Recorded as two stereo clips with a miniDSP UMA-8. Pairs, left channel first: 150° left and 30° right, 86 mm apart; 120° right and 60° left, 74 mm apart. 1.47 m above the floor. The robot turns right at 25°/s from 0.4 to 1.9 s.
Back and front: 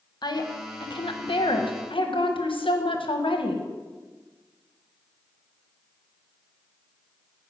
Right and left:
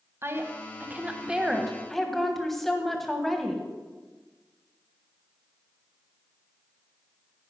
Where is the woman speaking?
115° left, 1.3 m; by 3.6 s 155° left, 1.3 m.